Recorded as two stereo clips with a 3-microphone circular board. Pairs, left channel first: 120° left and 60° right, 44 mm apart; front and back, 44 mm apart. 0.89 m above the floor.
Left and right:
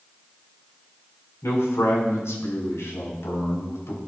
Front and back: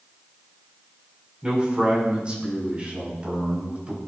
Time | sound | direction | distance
1.4 | a man speaking | 115° left | 6.5 m